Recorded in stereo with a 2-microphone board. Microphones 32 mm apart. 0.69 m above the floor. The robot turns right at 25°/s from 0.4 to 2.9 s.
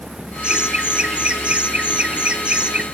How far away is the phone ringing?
I don't hear a phone ringing.